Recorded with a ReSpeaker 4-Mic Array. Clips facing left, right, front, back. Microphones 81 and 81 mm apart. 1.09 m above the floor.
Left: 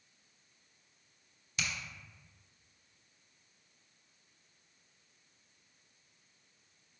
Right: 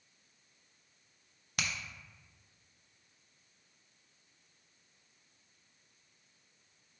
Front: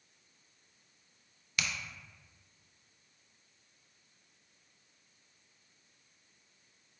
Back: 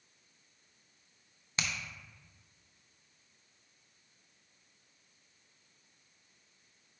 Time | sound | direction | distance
1.6 | a finger snap | 120° right | 0.5 m